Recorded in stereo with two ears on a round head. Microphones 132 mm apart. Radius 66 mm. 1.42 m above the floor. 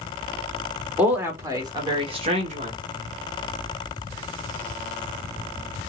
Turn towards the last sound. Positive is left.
turn(degrees=-50)  # may be behind; listen again after turning